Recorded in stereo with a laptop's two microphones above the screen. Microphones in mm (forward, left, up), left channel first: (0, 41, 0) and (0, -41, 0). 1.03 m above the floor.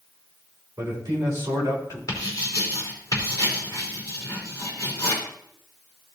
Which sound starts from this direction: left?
Writing, at 2.1 s.